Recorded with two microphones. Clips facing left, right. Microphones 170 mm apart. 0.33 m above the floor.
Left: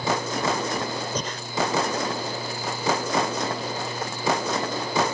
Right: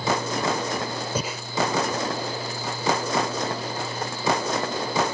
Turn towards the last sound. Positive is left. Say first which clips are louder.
# right 1 dB
turn(degrees=-10)  # may be behind; listen again after turning